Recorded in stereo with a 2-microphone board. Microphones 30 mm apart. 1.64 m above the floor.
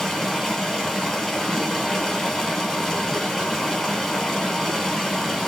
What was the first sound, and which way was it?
Running water, 5° left (ahead or behind).